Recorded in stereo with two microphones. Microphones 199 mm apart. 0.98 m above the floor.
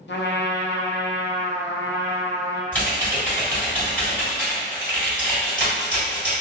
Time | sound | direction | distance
0.1 | a trumpet | 65° left (ahead or behind) | 0.5 m
2.7 | typing on a keyboard | 5° left (ahead or behind) | 1.7 m